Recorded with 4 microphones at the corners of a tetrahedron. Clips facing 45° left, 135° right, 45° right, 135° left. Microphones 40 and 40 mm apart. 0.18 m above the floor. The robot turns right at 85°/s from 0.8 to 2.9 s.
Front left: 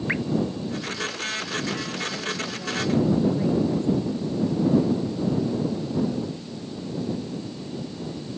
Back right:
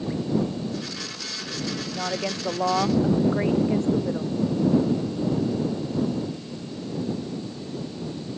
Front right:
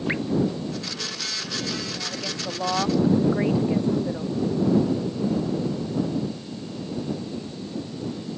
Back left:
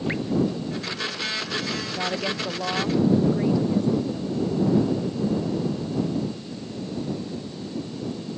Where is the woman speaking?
Straight behind; by 4.3 s 100° right.